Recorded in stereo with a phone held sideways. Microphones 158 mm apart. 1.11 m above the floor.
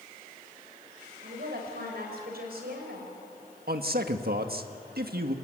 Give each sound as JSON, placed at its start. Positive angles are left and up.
{"t": 1.2, "sound": "a woman speaking", "side_deg": -80, "distance_m": 6.0}
{"t": 3.7, "sound": "a man speaking", "side_deg": -75, "distance_m": 1.6}